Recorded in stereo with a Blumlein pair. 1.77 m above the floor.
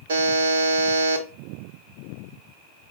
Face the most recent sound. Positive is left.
turn(degrees=-65)